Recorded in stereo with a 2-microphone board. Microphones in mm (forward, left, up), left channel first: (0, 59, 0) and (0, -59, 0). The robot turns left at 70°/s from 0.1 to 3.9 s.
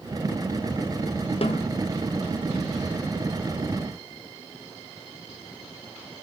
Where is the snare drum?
55° left (ahead or behind), 0.8 m; by 1.7 s 45° left (ahead or behind), 0.8 m.